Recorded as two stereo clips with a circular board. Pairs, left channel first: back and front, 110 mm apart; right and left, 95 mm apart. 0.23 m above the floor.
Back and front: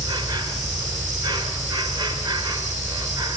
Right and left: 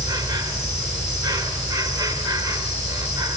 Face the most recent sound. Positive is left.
turn(degrees=50)